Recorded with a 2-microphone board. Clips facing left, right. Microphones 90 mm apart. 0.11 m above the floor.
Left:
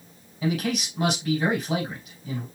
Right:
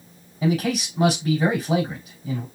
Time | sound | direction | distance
0.4 | a man speaking | 35° right (ahead or behind) | 3.5 m